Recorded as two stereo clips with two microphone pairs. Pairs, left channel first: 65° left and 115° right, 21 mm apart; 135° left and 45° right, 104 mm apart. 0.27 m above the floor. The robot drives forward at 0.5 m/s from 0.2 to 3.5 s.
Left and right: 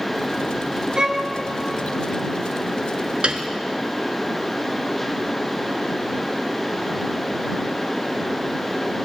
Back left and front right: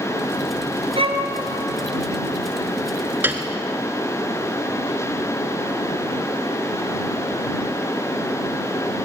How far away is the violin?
About 1.9 m.